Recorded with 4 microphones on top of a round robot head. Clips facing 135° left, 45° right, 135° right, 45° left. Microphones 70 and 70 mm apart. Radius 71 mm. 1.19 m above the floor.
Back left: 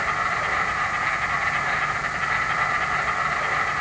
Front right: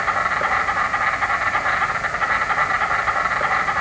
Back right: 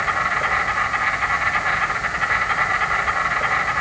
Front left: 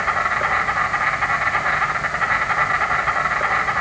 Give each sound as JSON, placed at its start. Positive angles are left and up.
{"t": 0.0, "sound": "an insect", "azimuth_deg": -5, "distance_m": 2.0}